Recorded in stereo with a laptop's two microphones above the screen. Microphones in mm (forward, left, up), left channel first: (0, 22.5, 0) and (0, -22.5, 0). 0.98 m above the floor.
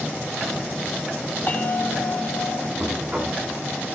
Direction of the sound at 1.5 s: 50° left (ahead or behind).